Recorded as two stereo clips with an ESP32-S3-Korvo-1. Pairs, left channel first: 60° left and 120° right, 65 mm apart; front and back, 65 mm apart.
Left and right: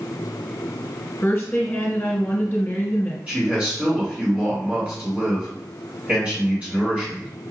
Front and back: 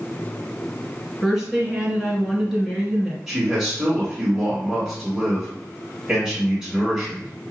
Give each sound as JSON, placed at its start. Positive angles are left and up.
{"t": 1.2, "sound": "a woman speaking", "azimuth_deg": 90, "distance_m": 1.7}
{"t": 3.3, "sound": "a man speaking", "azimuth_deg": -120, "distance_m": 1.8}